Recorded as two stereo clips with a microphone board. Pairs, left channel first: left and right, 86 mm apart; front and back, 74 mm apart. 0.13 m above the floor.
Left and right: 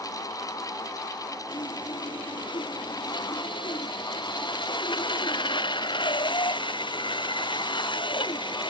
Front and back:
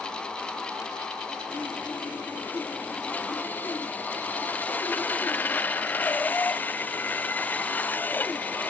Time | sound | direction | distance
1.5 | sawing | 70° left | ?